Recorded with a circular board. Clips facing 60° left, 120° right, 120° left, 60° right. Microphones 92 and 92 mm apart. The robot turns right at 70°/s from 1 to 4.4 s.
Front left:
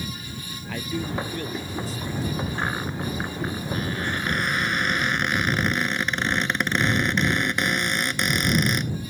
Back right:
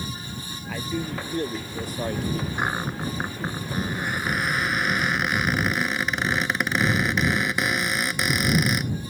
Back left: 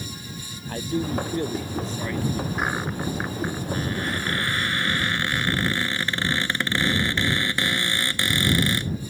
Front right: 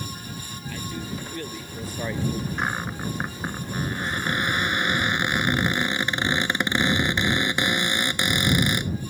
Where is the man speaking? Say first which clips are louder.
Front left 1 dB, back left 8 dB; 155° left; by 2.5 s 100° right.